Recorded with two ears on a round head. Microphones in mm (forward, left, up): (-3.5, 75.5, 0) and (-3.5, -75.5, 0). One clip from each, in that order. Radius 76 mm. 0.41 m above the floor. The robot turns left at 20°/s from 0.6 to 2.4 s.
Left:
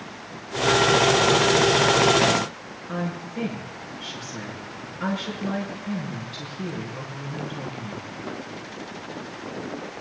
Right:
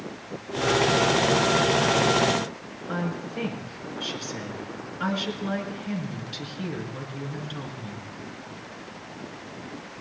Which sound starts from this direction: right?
A woman speaking, at 2.9 s.